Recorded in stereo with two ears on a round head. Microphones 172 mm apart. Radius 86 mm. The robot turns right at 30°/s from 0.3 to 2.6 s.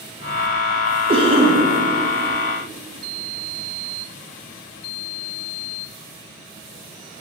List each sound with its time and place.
1.1 s a cough: 30° right (ahead or behind), 0.5 m